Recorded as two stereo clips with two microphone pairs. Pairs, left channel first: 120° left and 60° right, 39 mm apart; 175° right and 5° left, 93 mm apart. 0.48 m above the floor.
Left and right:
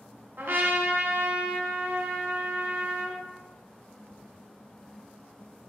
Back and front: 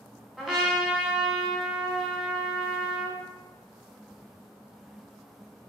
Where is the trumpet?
80° right, 1.0 m.